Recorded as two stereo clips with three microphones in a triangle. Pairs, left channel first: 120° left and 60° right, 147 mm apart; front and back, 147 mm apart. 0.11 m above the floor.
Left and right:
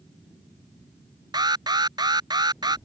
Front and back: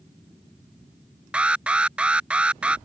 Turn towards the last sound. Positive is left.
turn(degrees=-100)